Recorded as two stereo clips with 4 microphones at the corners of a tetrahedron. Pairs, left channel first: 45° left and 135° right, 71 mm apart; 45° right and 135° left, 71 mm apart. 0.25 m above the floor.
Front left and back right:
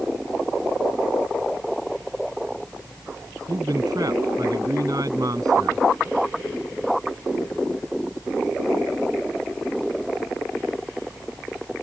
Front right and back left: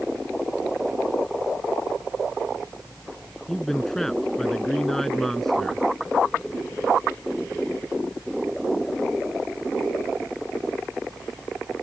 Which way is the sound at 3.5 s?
130° right.